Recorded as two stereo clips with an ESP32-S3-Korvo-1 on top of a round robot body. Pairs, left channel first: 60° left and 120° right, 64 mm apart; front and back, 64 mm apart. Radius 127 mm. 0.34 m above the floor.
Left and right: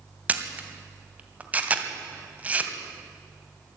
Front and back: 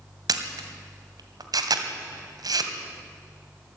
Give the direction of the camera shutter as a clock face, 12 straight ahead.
6 o'clock.